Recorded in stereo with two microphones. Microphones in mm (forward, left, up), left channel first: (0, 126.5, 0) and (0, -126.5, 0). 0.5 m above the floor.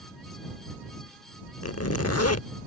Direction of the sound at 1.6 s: 75° left (ahead or behind).